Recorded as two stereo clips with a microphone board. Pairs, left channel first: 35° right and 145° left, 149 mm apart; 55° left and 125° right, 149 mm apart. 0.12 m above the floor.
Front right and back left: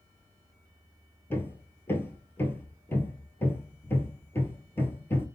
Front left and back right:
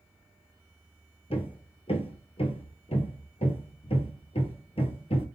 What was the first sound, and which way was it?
Hammering, 35° left.